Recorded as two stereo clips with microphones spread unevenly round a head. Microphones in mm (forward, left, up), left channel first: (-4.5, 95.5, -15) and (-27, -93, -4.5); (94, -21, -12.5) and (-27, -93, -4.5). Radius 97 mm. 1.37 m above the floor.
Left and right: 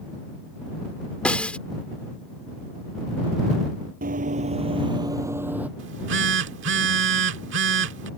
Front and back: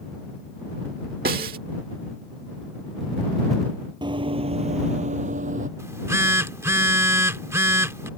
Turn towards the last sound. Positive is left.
turn(degrees=-80)